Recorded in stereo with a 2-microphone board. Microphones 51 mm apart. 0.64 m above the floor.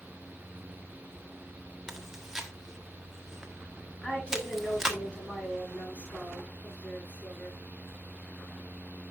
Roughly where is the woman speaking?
Left.